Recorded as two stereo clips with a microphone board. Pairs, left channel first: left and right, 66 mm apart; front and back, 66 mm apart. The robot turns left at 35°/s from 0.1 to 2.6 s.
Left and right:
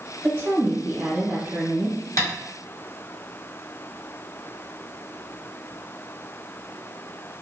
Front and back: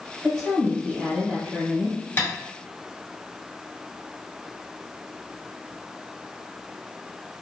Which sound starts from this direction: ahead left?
Tapping, at 2.2 s.